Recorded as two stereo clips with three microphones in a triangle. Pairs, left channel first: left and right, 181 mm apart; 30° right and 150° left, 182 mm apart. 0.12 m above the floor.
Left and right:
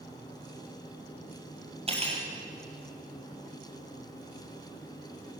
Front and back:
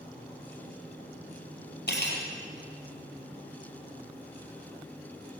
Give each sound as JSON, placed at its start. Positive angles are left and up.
{"t": 1.9, "sound": "cutlery clinking", "azimuth_deg": -40, "distance_m": 2.0}